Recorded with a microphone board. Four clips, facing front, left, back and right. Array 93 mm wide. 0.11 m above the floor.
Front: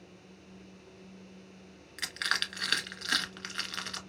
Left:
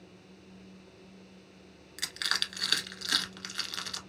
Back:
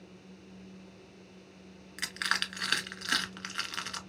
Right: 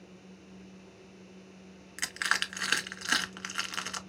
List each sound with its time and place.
2.0 s crushing: 95° right, 0.6 m